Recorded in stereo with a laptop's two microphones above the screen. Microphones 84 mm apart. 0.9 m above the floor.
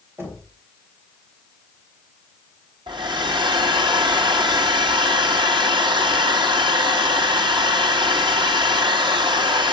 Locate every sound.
0.2 s knocking: 30° right (ahead or behind), 3 m
2.9 s a hair dryer: 65° right (ahead or behind), 1.3 m